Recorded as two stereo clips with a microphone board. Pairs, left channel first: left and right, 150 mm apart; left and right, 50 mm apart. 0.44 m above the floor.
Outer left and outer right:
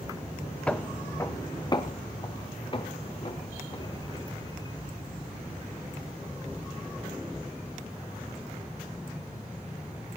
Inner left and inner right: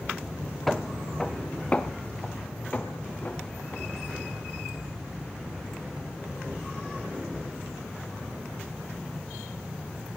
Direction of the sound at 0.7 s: 5° left (ahead or behind).